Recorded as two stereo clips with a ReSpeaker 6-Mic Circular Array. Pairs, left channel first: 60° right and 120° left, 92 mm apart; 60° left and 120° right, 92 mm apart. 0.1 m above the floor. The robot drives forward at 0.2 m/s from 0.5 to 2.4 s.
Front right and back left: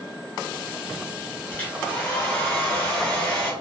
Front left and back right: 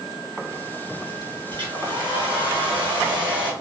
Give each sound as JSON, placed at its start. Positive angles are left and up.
{"t": 1.5, "sound": "a hair dryer", "azimuth_deg": -130, "distance_m": 1.2}